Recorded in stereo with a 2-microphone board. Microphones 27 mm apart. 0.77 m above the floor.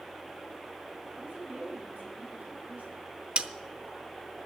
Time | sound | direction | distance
1.1 | a woman speaking | 85° right | 6.5 m
3.4 | a snare drum | 45° right (ahead or behind) | 0.8 m